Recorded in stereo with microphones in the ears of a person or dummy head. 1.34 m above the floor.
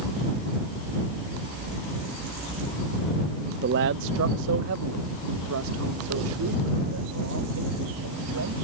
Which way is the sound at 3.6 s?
55° right (ahead or behind).